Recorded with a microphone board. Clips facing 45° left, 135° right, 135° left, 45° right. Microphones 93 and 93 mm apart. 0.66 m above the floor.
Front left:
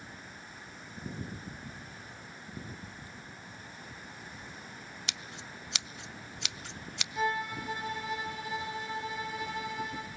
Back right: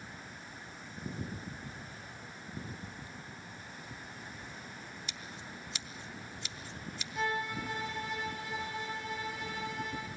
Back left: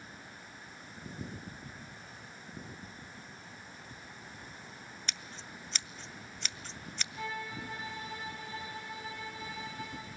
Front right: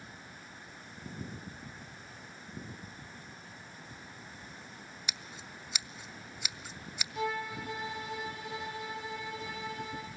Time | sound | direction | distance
5.1 | scissors | 35° left | 0.5 m
7.2 | a violin | 45° right | 7 m